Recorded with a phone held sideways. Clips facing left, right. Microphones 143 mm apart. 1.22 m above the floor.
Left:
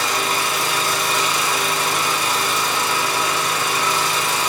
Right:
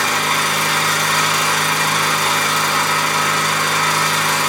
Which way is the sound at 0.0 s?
70° right (ahead or behind).